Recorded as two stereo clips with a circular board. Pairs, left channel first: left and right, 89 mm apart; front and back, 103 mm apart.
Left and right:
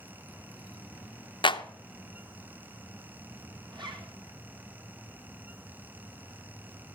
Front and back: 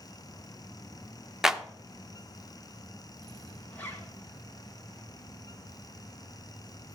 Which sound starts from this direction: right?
A zipper, at 3.7 s.